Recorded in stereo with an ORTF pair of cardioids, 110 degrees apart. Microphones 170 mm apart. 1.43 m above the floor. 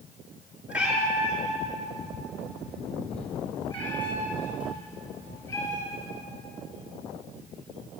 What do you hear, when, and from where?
0.7 s a cat meowing: 5° right, 5 m; by 6.2 s 15° left, 8 m